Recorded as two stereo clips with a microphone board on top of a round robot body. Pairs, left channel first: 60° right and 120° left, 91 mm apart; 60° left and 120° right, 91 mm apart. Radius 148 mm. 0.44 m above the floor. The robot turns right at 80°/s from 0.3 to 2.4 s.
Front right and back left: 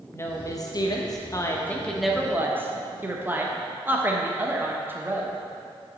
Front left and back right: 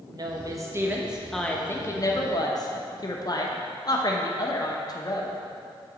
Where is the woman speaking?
110° right, 1.1 m; by 5.4 s 60° left, 1.1 m.